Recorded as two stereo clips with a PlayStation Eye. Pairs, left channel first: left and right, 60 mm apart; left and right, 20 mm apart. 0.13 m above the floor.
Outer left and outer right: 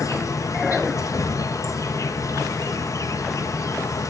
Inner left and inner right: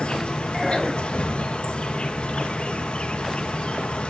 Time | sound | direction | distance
0.0 | an insect | 60° left (ahead or behind) | 1.4 m